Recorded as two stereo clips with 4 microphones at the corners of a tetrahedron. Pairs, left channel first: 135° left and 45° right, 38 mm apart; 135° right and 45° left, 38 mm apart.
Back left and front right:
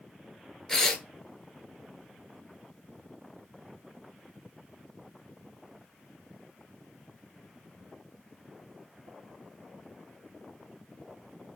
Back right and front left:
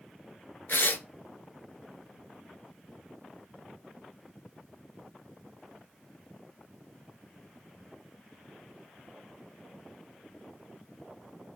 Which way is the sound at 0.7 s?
150° right.